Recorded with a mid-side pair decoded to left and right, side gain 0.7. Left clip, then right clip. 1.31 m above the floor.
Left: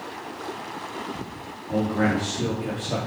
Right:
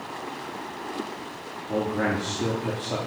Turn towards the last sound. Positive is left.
turn(degrees=0)